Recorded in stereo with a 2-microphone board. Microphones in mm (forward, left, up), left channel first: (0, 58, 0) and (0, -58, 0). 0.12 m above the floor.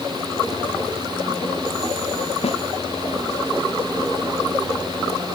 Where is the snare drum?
65° left (ahead or behind).